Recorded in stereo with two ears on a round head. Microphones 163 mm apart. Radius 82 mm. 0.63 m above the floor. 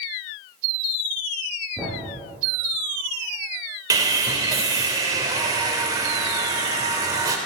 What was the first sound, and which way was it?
A thud, 5° right (ahead or behind).